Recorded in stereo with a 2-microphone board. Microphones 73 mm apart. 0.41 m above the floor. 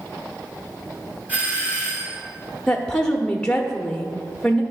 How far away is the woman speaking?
About 0.8 m.